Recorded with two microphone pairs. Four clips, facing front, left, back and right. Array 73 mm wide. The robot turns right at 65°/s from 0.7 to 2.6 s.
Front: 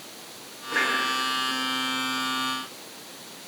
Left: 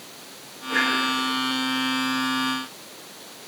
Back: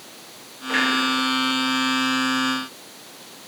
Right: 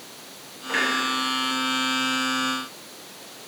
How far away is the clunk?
About 5 m.